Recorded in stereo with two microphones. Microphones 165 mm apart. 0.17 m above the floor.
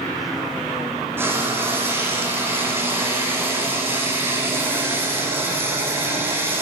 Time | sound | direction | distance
1.2 | frying | 15° right (ahead or behind) | 8.5 m